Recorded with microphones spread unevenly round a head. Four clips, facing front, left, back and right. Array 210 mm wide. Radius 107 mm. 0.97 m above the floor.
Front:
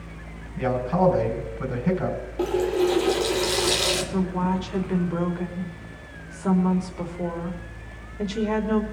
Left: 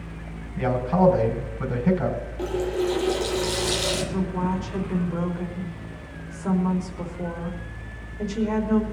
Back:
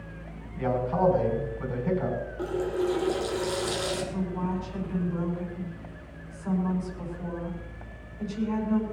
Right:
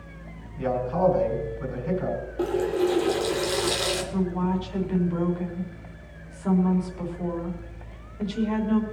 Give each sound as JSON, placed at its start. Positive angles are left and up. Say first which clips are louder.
{"t": 0.6, "sound": "a man speaking", "louder": "left 3 dB, front 3 dB", "azimuth_deg": 55, "distance_m": 5.0}
{"t": 2.4, "sound": "a running tap", "louder": "right 2 dB, front 7 dB", "azimuth_deg": -40, "distance_m": 2.0}
{"t": 4.1, "sound": "a woman speaking", "louder": "even, front 6 dB", "azimuth_deg": 10, "distance_m": 3.0}